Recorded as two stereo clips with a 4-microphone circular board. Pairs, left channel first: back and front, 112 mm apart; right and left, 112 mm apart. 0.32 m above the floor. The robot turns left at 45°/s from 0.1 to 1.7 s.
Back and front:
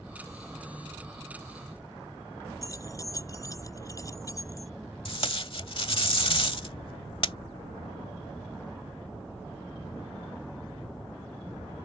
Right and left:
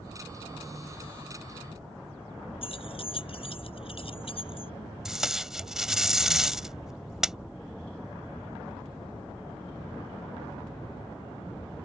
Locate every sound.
2.6 s keys jangling: 120° right
5.0 s tape being pulled: 175° left